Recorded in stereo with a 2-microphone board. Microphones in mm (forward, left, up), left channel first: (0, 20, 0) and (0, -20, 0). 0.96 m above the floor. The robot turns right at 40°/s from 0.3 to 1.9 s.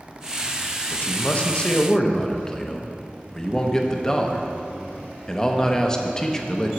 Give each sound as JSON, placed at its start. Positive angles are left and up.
{"t": 0.9, "sound": "a man speaking", "azimuth_deg": 120, "distance_m": 0.7}